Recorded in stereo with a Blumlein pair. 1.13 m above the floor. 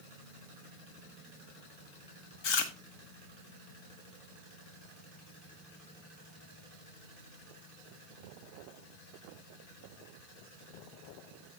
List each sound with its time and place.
2.4 s chewing: 40° left, 1.3 m